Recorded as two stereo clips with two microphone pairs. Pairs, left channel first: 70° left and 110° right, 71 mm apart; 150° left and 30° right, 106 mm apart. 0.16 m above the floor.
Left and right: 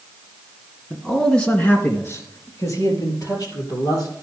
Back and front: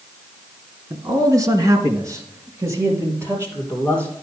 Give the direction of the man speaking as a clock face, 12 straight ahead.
1 o'clock.